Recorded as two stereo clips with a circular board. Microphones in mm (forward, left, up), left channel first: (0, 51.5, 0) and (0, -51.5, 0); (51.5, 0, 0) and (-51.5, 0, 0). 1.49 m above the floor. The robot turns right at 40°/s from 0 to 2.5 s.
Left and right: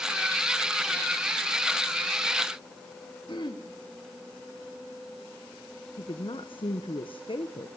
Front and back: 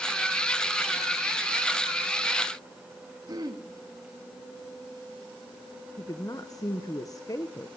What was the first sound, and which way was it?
Throat clearing, 130° left.